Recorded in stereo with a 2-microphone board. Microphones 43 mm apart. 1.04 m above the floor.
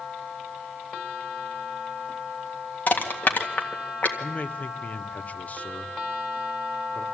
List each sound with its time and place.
2.9 s crushing: 45° left (ahead or behind), 1.9 m
4.2 s a man speaking: 35° left (ahead or behind), 1.0 m